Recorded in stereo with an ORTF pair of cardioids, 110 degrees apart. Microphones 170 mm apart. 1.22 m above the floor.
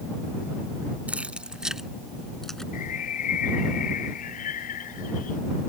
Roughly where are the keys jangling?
Ahead.